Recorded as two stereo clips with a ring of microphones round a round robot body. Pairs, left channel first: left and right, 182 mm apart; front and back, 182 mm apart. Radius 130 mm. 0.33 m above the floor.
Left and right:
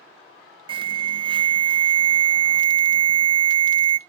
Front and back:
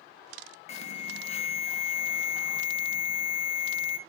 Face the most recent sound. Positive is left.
turn(degrees=-40)